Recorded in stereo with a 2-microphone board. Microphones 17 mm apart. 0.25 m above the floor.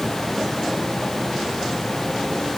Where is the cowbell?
No cowbell in this recording.